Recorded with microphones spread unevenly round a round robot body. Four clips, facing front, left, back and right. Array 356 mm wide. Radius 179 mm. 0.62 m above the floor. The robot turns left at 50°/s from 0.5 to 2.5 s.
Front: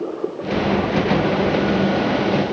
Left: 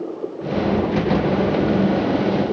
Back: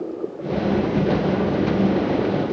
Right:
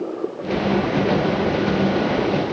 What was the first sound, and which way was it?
Only background noise.